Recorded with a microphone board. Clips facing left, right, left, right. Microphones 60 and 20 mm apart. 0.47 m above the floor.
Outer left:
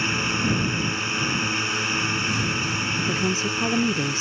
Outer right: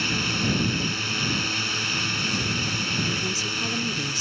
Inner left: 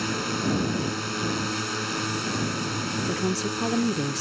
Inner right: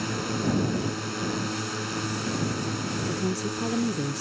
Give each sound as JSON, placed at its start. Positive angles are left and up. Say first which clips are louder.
{"t": 0.0, "sound": "a drone", "louder": "outer left 2 dB, inner left 1 dB", "side_deg": 25}
{"t": 3.1, "sound": "a woman speaking", "louder": "outer left 4 dB, inner left 3 dB", "side_deg": 35}